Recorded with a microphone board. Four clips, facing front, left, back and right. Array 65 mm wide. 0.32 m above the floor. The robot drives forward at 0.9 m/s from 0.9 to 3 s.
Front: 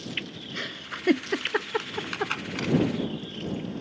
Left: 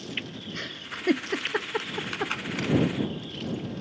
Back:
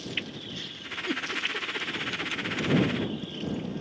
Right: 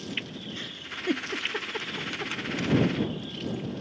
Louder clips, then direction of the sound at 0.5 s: Left 2 dB, front 7 dB; 25° left.